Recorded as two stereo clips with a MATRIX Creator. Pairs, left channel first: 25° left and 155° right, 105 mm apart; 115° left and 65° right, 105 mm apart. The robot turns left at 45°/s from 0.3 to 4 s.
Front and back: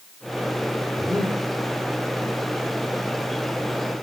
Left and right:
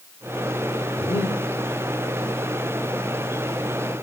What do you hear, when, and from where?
1.0 s breathing: 140° left, 7 m; by 1.4 s 125° left, 7 m